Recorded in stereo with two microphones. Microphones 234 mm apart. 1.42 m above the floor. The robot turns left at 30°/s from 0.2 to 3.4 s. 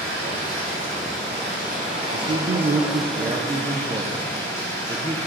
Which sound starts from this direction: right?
Running water, at 0.0 s.